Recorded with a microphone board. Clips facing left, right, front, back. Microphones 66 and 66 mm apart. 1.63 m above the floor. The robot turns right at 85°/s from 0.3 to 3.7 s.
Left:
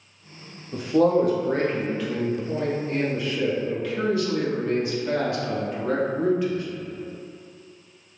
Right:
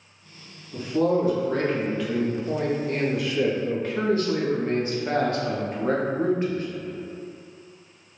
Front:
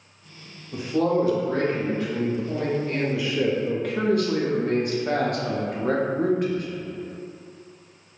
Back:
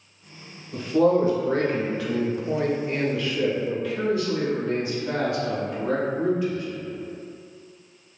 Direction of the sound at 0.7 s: 70° left.